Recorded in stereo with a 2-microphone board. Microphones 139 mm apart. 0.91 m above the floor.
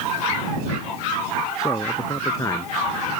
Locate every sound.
1.6 s a man speaking: 25° left (ahead or behind)